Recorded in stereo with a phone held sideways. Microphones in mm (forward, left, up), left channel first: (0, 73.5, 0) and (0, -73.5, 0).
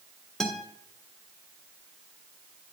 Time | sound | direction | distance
0.4 | a guitar | 5° left (ahead or behind) | 1.5 m